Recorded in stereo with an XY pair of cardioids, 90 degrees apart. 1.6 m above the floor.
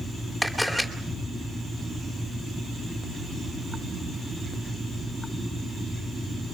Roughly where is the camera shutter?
Ahead.